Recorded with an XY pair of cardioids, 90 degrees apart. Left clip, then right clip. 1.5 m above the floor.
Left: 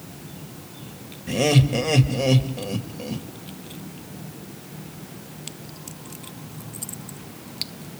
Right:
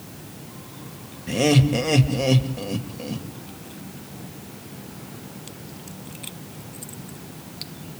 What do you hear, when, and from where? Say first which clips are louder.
1.3 s laughter: right 1 dB; straight ahead, 2.0 m